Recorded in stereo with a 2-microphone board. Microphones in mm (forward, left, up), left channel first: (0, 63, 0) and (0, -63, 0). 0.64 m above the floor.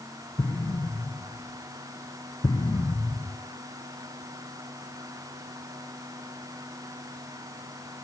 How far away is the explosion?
About 1.0 m.